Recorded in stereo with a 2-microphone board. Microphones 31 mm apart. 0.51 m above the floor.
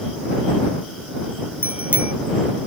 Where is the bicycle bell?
45° right (ahead or behind).